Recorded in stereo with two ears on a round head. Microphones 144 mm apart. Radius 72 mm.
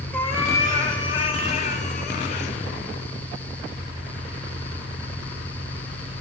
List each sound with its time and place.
0.1 s a cat meowing: 10° left (ahead or behind), 1.3 m; by 2.5 s 50° left (ahead or behind), 1.4 m